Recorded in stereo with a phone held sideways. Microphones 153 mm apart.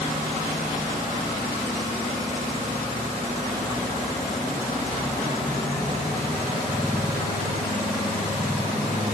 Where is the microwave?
No microwave in this recording.